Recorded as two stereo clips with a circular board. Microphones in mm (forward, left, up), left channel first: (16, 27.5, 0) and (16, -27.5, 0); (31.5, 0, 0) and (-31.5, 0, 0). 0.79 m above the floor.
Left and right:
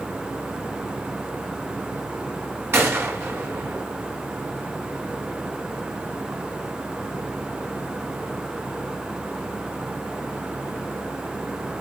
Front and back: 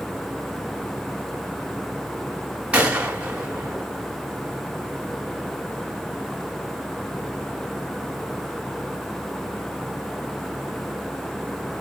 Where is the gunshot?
115° right, 1.6 m.